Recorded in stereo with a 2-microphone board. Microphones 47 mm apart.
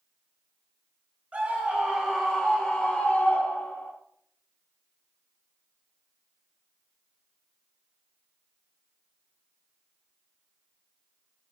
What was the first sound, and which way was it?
A scream, 35° right (ahead or behind).